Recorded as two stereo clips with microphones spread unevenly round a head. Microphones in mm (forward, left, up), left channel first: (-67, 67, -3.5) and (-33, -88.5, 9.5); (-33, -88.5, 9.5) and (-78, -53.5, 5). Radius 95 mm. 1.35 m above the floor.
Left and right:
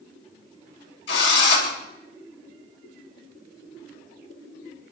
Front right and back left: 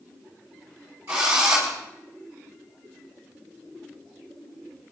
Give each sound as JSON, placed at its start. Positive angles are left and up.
{"t": 1.1, "sound": "a drill", "azimuth_deg": 60, "distance_m": 5.0}